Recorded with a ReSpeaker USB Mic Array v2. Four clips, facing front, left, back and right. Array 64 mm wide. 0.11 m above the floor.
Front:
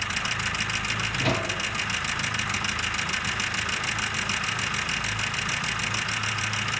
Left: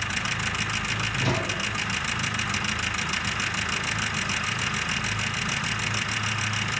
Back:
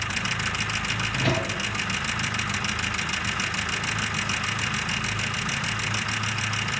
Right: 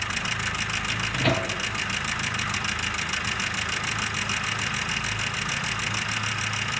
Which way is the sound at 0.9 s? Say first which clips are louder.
Right 4 dB, back 1 dB; 100° right.